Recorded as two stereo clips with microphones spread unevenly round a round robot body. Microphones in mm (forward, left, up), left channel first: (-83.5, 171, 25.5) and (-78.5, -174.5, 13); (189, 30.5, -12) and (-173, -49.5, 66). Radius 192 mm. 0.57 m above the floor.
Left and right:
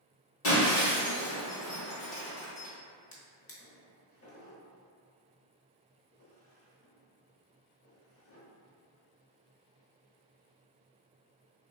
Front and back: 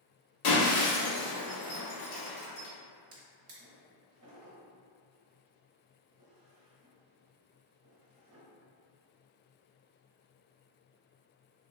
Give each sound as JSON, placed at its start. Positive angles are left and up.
{"t": 0.4, "sound": "breaking glass", "azimuth_deg": 35, "distance_m": 1.4}
{"t": 3.1, "sound": "a drawer", "azimuth_deg": 140, "distance_m": 1.0}